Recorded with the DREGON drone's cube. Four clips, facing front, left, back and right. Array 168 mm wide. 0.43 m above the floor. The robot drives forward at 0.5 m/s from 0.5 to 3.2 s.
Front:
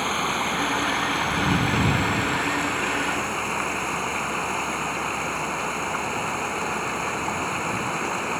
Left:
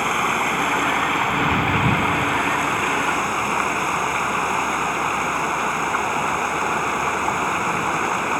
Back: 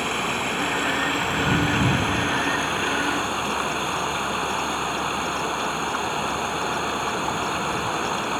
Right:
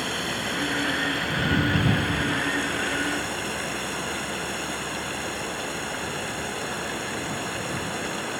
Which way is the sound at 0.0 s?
80° left.